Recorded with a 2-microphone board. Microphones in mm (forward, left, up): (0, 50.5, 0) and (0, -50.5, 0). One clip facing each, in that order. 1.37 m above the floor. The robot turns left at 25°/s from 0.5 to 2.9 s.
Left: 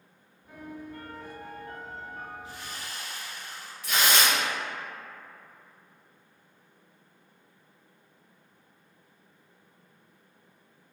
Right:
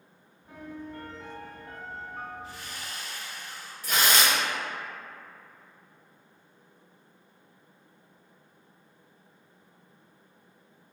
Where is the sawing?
80° right, 1.4 m; by 3.7 s 75° right (ahead or behind), 1.4 m.